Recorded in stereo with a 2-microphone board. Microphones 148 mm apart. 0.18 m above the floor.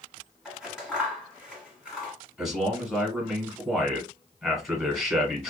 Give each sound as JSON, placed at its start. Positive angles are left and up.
{"t": 0.5, "sound": "scissors", "side_deg": -5, "distance_m": 1.5}
{"t": 2.4, "sound": "a man speaking", "side_deg": 0, "distance_m": 1.5}